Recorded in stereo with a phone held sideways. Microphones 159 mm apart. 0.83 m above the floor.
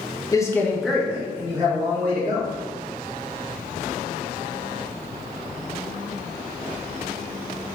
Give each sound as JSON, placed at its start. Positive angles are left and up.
{"t": 0.3, "sound": "a man speaking", "side_deg": 20, "distance_m": 0.6}